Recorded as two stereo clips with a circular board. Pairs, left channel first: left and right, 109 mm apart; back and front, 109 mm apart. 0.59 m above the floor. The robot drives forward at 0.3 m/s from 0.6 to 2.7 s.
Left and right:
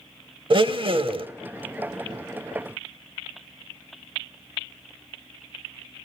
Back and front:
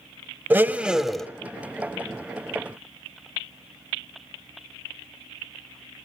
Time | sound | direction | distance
0.5 | a blender | 70° right | 0.5 m